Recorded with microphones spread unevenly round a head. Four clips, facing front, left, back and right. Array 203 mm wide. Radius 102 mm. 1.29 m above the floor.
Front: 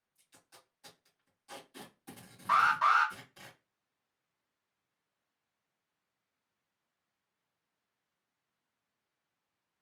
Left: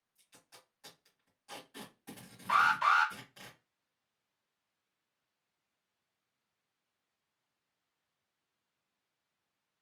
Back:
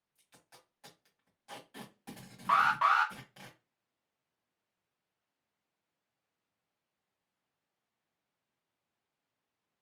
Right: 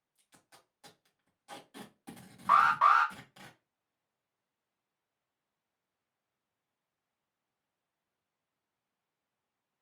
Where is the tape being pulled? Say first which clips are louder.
Even, back 1 dB; 130° right, 1.5 m.